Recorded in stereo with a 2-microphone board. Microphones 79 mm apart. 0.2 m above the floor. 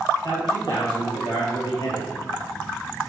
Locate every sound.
0.2 s a man speaking: 65° left (ahead or behind), 4 m; by 2.1 s 75° left (ahead or behind), 4 m